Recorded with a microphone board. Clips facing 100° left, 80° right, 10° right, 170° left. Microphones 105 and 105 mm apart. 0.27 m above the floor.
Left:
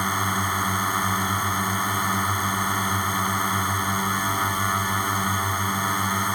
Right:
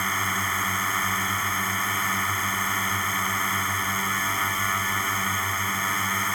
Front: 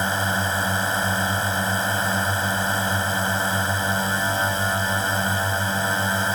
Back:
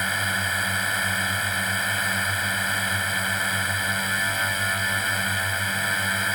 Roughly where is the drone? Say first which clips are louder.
Left 3 dB, front 4 dB; ahead left.